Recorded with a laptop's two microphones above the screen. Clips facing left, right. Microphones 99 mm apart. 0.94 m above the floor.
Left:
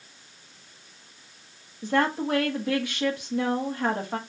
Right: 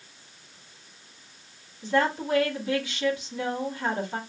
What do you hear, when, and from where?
1.8 s a woman speaking: 50° left (ahead or behind), 1.2 m